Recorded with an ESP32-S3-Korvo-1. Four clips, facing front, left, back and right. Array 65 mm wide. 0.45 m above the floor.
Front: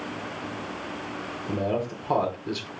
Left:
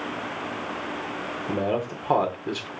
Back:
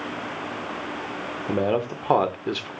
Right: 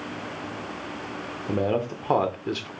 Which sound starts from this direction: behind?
A man speaking, at 1.5 s.